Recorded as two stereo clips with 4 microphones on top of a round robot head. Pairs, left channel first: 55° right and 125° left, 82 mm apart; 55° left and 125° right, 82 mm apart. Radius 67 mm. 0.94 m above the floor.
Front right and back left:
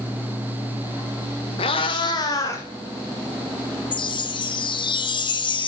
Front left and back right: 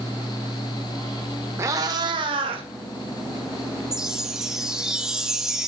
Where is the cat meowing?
65° right, 1.5 m; by 2.6 s 110° right, 2.5 m.